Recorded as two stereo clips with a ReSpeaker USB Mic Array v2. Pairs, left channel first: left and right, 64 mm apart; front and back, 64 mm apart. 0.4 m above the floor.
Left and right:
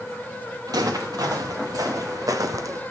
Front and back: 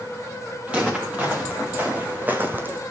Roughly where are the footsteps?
Right.